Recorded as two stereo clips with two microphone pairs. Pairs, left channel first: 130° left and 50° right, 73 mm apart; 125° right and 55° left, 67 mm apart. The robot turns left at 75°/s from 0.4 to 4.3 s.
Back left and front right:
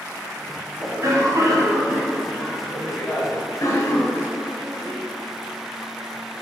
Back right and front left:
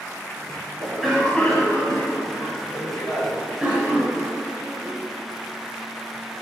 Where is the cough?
Straight ahead, 1.6 m; by 5.0 s 95° left, 1.6 m.